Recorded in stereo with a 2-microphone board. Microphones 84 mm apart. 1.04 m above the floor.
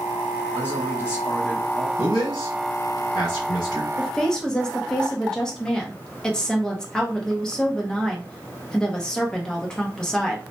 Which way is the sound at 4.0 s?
10° left (ahead or behind).